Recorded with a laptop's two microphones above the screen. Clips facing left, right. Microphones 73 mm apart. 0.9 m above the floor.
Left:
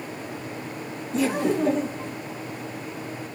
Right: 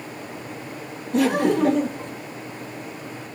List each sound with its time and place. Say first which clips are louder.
1.1 s laughter: right 4 dB; 55° right (ahead or behind), 1.0 m